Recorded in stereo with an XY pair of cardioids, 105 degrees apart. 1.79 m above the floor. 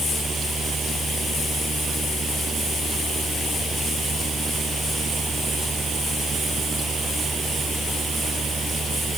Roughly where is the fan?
Ahead right.